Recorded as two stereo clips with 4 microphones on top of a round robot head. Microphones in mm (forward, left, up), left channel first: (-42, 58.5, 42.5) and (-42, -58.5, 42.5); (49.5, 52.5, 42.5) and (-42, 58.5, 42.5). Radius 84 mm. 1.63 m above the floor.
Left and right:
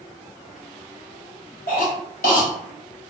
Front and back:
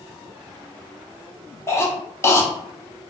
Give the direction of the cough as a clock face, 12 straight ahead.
10 o'clock.